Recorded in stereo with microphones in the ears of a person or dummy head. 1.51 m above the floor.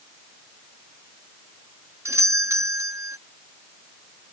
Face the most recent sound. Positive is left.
turn(degrees=-10)  # may be behind; listen again after turning